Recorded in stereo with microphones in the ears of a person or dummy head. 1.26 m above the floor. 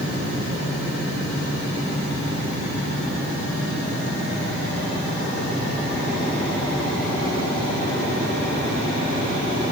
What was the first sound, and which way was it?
Only background noise.